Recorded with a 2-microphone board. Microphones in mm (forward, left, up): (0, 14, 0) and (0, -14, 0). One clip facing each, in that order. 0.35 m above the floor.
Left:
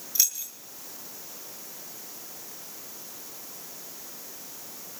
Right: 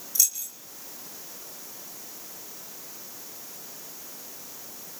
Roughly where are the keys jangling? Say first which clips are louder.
Even; left.